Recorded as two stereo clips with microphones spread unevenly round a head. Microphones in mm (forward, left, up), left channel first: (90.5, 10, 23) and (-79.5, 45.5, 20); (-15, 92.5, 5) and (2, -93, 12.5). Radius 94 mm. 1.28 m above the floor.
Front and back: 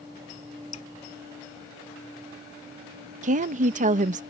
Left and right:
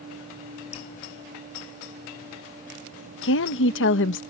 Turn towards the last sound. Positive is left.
turn(degrees=120)